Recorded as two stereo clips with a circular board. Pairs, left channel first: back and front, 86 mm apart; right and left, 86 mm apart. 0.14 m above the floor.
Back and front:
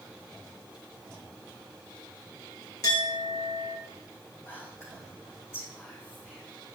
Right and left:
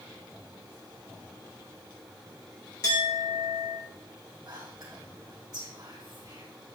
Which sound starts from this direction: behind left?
Whispering, at 4.5 s.